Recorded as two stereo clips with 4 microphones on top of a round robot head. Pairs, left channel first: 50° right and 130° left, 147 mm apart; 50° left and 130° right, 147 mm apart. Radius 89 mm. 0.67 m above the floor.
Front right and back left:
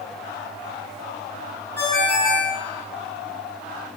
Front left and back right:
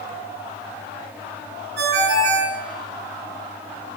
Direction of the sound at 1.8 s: 125° right.